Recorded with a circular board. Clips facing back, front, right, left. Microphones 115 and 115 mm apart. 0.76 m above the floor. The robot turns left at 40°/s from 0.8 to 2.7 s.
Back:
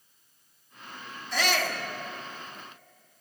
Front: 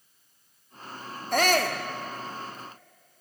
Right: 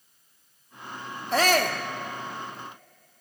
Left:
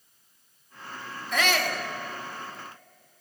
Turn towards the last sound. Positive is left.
turn(degrees=-90)